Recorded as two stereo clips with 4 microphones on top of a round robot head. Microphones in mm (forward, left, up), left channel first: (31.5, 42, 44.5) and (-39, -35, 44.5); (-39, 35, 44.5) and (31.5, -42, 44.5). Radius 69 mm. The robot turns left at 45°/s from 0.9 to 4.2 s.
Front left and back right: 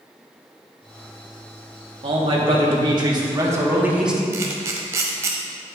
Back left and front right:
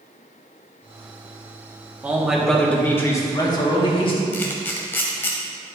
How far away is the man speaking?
About 1.7 m.